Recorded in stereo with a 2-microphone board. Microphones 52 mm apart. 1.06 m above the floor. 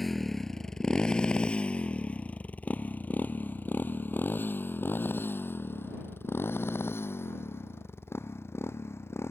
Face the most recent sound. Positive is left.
turn(degrees=55)  # may be behind; listen again after turning